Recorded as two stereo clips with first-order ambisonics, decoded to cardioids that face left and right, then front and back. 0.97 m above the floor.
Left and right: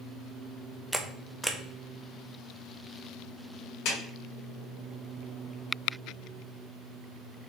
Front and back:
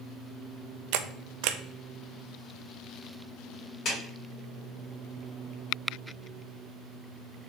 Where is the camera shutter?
175° right, 0.5 m.